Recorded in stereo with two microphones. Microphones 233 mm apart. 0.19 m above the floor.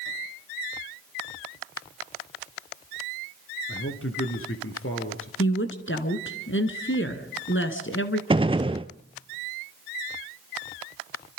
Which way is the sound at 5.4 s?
60° left (ahead or behind).